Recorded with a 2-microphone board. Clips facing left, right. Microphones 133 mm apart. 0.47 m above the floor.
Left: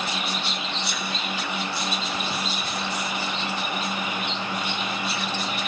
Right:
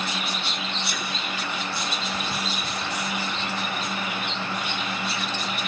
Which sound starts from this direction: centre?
A sneeze, at 0.8 s.